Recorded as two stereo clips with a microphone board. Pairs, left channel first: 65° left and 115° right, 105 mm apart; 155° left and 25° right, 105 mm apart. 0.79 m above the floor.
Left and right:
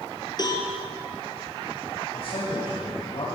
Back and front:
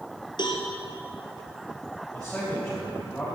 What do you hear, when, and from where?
0.4 s a cowbell: 115° left, 3 m
2.1 s a man speaking: 75° left, 4 m